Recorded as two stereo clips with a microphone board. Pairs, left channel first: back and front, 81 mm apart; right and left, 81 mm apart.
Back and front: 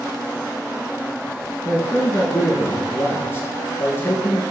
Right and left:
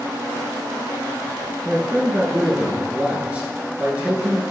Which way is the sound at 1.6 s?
150° left.